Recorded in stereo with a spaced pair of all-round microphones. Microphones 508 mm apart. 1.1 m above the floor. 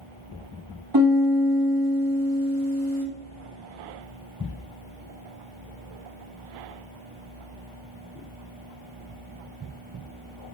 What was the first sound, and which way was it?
A piano, 45° right (ahead or behind).